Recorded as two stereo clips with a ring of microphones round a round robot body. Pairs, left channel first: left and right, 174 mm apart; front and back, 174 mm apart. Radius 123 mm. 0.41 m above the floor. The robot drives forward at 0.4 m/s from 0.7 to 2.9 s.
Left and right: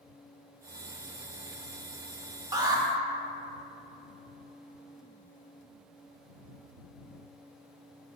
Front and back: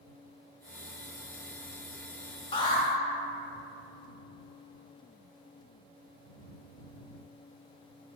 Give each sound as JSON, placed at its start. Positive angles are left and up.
{"t": 2.5, "sound": "an alarm", "azimuth_deg": -35, "distance_m": 0.6}